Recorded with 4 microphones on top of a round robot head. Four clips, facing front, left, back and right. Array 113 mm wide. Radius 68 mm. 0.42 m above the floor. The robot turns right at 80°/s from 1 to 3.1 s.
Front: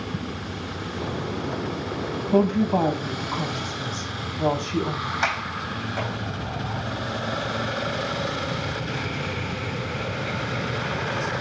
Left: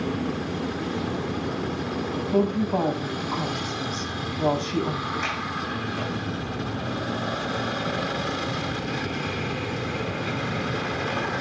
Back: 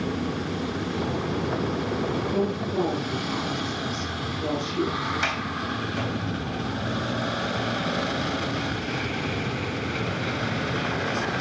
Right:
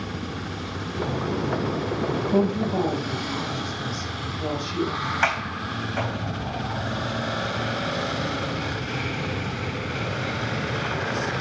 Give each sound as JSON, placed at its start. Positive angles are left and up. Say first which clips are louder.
{"t": 2.3, "sound": "a woman speaking", "louder": "left 1 dB, front 10 dB", "azimuth_deg": -20, "distance_m": 3.0}
{"t": 5.2, "sound": "a sliding door", "louder": "right 3 dB, front 1 dB", "azimuth_deg": -60, "distance_m": 3.0}